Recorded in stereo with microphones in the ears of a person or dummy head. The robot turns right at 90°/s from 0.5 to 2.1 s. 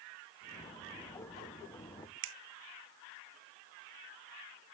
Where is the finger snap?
65° right (ahead or behind), 0.8 m.